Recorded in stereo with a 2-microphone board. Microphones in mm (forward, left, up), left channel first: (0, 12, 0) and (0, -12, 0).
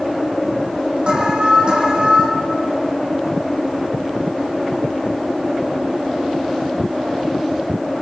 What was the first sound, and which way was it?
An alarm, 45° right (ahead or behind).